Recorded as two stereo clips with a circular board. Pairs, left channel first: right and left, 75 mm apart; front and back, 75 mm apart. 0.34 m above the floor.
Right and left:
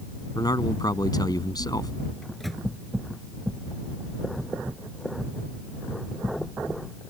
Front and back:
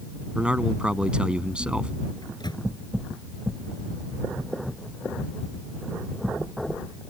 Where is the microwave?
5° right.